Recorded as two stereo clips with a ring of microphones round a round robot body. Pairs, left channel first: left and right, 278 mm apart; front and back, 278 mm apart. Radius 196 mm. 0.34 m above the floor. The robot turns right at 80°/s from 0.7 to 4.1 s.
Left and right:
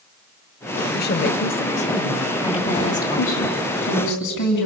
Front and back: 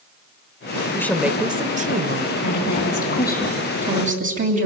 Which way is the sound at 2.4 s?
10° left.